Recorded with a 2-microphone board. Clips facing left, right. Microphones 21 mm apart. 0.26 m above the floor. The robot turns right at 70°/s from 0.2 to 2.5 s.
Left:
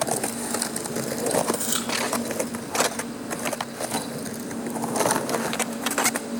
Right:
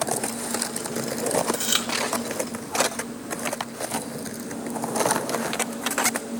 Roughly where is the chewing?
Right.